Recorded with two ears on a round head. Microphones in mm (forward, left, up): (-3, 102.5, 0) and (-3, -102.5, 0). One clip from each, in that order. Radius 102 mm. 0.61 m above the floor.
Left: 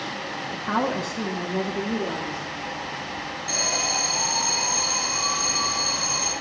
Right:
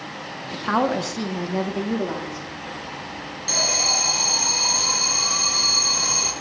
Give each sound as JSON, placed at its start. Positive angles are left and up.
{"t": 0.5, "sound": "a woman speaking", "side_deg": -20, "distance_m": 0.7}
{"t": 3.5, "sound": "an alarm", "side_deg": -30, "distance_m": 4.0}